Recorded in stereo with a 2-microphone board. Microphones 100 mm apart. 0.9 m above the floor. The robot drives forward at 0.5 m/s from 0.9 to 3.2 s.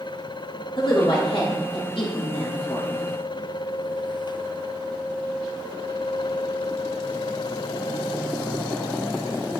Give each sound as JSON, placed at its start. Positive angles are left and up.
{"t": 0.8, "sound": "a woman speaking", "side_deg": 60, "distance_m": 2.5}